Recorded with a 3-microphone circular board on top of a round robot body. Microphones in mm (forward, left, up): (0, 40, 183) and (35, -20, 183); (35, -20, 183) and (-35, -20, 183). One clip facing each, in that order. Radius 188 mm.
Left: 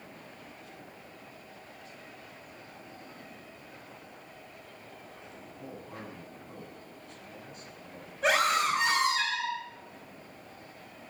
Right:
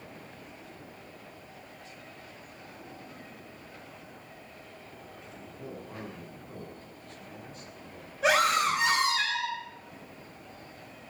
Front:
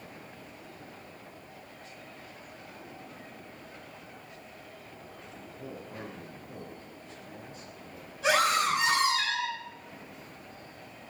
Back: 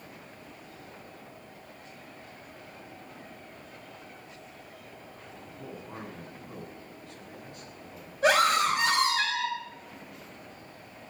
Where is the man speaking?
150° right, 8.5 m.